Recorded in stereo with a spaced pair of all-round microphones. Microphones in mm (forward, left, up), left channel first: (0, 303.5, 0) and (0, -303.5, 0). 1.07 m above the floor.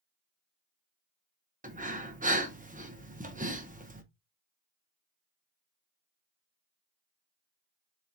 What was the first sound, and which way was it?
Breathing, 15° right (ahead or behind).